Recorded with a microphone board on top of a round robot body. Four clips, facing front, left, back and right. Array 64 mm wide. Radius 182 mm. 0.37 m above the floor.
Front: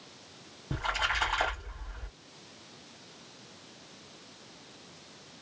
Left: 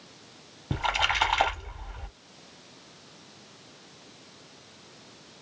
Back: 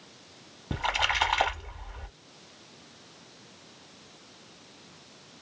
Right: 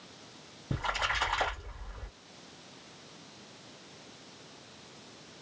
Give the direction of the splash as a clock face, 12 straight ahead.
7 o'clock.